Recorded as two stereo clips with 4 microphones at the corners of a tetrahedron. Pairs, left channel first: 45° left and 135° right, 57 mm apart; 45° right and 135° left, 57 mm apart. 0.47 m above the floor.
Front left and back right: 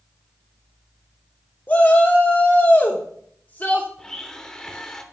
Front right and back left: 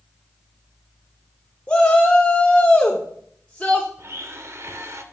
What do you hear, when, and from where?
1.7 s a shout: 10° left, 0.7 m
4.0 s a blender: 120° left, 0.6 m